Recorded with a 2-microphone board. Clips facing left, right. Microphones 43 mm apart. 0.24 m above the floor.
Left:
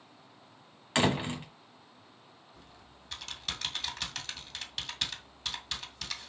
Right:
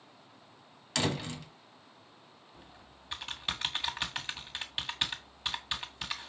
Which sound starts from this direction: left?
A door slam, at 0.9 s.